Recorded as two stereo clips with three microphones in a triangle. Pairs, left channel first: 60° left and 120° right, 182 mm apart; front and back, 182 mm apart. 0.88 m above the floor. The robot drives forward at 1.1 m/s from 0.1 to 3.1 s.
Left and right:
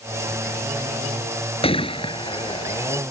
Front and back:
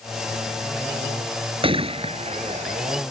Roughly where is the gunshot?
Behind left.